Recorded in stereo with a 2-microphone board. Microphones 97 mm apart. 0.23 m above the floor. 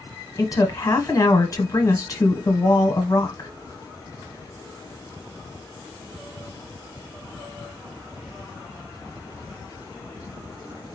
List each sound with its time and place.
0.4 s a woman speaking: 40° left (ahead or behind), 1.2 m